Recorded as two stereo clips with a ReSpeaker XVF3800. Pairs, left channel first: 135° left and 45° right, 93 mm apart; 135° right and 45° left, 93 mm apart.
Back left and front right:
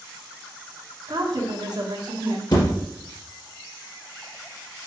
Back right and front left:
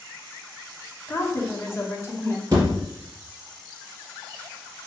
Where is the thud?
95° left, 3.5 m.